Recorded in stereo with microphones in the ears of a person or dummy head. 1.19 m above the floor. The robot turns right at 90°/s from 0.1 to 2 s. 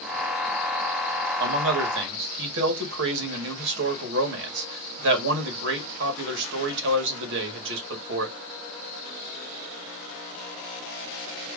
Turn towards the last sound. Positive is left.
turn(degrees=-70)